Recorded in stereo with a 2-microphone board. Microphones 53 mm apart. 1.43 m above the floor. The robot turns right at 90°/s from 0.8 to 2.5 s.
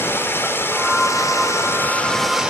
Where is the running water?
50° left, 3.5 m; by 2.5 s 160° right, 3.5 m.